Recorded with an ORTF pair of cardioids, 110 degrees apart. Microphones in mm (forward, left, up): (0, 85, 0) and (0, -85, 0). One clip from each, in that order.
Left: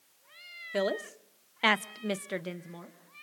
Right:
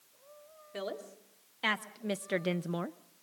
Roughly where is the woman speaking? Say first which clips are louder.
Left 9 dB; ahead left.